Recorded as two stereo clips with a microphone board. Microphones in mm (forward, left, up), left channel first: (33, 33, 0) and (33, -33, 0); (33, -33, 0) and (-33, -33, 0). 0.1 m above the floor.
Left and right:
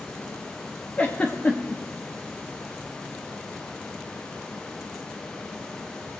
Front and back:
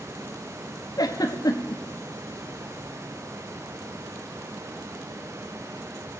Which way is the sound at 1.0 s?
20° left.